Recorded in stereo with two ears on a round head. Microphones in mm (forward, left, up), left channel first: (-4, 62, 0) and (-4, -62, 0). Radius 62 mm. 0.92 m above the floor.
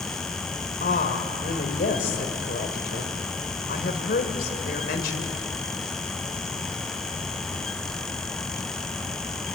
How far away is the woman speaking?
About 3 m.